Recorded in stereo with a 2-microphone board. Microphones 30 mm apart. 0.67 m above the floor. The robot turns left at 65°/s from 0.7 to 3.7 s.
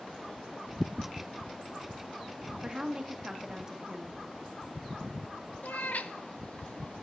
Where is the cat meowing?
70° left (ahead or behind), 0.6 m.